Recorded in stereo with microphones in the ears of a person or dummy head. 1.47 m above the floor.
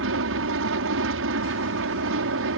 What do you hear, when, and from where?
0.0 s an aircraft: 65° right (ahead or behind)